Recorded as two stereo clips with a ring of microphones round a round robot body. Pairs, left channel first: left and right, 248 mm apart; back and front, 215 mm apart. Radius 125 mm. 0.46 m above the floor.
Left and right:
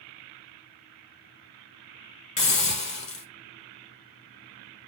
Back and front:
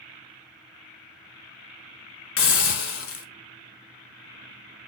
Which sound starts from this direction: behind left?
A hiss, at 2.4 s.